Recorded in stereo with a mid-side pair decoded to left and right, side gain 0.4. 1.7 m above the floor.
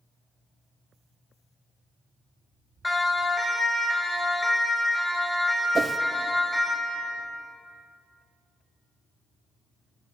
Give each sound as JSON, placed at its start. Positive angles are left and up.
{"t": 2.8, "sound": "a siren", "azimuth_deg": 25, "distance_m": 7.0}
{"t": 5.8, "sound": "a whoosh", "azimuth_deg": -40, "distance_m": 1.2}